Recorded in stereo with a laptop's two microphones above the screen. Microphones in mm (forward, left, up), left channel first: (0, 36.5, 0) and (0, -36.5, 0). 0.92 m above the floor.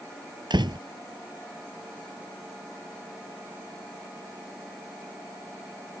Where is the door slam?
80° right.